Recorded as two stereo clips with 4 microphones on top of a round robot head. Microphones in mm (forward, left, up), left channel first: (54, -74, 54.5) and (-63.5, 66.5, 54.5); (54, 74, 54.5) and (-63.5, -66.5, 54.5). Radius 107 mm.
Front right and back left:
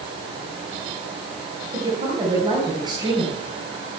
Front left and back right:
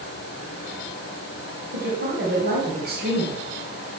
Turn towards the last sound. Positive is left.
turn(degrees=-165)